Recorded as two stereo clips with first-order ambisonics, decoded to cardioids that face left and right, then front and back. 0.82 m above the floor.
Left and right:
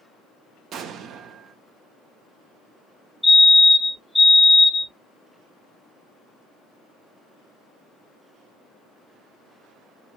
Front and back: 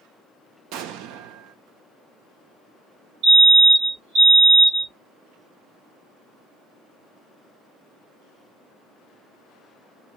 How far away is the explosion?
About 0.5 m.